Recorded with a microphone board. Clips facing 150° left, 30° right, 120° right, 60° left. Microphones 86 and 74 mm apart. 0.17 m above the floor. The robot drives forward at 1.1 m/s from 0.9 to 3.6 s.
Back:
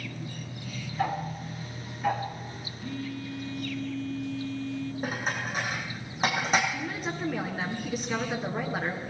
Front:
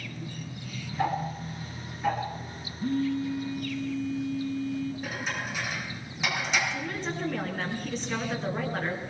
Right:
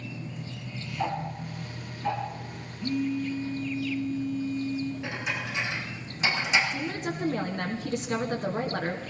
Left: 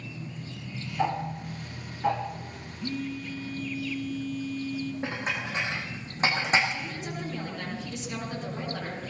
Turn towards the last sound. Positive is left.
turn(degrees=-130)